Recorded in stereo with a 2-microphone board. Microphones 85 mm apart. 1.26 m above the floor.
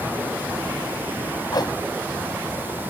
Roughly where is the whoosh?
Left.